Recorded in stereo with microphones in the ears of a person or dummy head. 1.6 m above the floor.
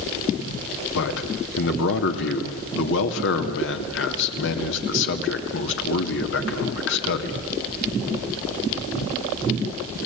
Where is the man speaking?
70° left (ahead or behind), 2.5 m.